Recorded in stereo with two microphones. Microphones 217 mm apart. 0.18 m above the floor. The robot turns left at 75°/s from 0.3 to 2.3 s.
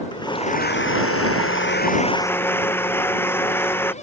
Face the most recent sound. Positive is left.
turn(degrees=10)